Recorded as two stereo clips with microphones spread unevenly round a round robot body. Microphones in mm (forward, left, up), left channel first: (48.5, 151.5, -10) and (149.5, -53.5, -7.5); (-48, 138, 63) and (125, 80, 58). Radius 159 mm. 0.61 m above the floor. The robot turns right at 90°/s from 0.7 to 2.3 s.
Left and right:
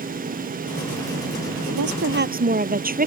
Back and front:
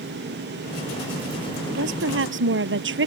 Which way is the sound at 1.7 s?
70° right.